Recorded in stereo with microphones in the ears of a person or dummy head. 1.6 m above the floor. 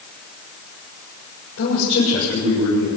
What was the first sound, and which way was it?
A man speaking, 65° left (ahead or behind).